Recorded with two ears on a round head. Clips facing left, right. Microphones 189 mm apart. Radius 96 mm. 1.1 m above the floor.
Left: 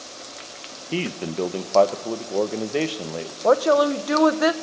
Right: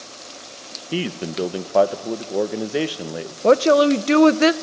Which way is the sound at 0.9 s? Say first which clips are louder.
Right 1 dB; 5° right (ahead or behind).